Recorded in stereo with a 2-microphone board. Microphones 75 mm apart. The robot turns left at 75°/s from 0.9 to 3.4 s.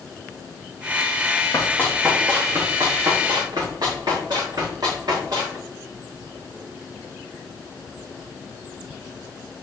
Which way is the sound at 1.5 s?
40° left (ahead or behind).